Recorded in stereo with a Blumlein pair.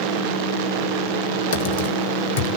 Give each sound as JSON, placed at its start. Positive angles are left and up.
{"t": 1.5, "sound": "typing on a keyboard", "azimuth_deg": 50, "distance_m": 1.8}